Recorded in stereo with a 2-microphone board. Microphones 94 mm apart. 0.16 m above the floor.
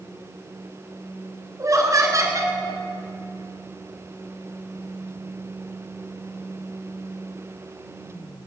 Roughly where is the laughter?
Right.